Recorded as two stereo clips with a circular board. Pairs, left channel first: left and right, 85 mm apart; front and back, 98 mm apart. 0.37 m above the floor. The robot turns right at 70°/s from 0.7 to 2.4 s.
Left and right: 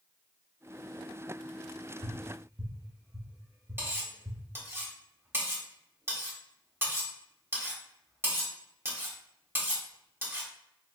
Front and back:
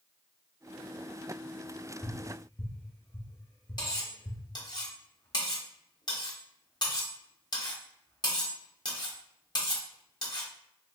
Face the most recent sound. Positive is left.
turn(degrees=-30)